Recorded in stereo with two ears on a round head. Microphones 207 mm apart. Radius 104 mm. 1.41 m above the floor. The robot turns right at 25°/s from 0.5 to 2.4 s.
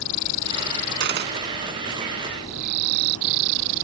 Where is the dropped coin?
50° right (ahead or behind); by 1.6 s 40° right (ahead or behind).